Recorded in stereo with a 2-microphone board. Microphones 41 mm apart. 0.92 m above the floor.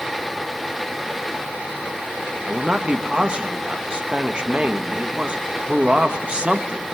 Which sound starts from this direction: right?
A man speaking, at 2.5 s.